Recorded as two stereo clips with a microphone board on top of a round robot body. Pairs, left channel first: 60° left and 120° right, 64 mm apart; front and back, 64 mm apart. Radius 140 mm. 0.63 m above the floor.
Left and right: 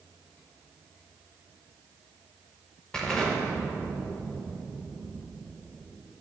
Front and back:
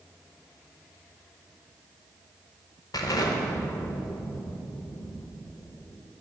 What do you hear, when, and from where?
2.9 s an explosion: 20° right, 0.8 m